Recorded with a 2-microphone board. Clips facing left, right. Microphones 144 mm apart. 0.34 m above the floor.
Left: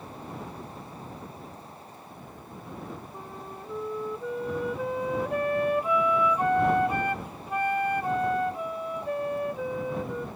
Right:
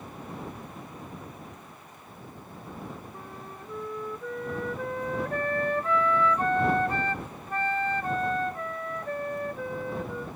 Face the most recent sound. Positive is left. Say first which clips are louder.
# left 2 dB
turn(degrees=15)  # may be behind; listen again after turning